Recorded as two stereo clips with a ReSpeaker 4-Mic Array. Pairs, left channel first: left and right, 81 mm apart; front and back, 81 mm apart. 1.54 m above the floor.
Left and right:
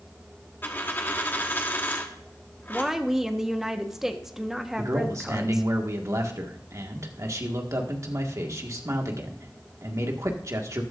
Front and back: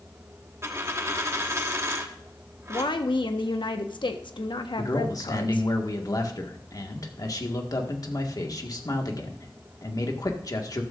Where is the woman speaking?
5° right, 1.2 m.